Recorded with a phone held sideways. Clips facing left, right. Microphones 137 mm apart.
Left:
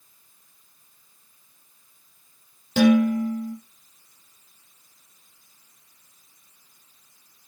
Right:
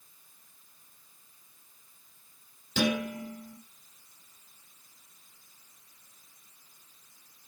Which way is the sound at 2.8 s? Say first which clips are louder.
Left 12 dB; 50° left (ahead or behind).